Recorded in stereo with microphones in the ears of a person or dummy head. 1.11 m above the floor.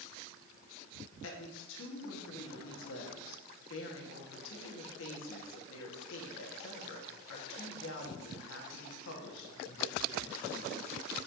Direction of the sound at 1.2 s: 75° left (ahead or behind).